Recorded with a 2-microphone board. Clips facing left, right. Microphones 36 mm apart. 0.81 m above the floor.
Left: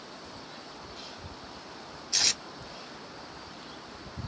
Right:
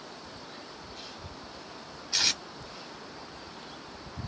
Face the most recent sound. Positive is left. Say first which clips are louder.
# right 1 dB
turn(degrees=-15)  # may be behind; listen again after turning